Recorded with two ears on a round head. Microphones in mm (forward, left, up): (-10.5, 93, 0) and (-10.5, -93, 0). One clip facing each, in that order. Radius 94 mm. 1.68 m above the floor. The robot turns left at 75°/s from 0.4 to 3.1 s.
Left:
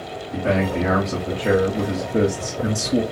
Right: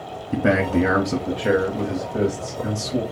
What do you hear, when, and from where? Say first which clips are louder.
0.3 s a man speaking: right 2 dB; 90° right, 0.7 m; by 3.0 s 70° left, 0.7 m